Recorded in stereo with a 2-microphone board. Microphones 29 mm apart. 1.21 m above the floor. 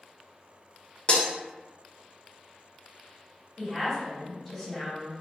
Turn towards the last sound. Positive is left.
turn(degrees=5)  # may be behind; listen again after turning